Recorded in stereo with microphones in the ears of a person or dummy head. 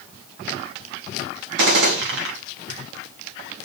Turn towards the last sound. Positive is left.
turn(degrees=-65)  # may be behind; listen again after turning